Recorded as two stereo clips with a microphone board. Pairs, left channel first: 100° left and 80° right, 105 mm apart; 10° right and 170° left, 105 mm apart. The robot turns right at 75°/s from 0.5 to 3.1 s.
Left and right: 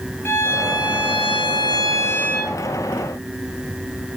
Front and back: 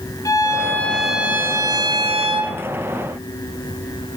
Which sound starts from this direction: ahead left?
A violin, at 0.2 s.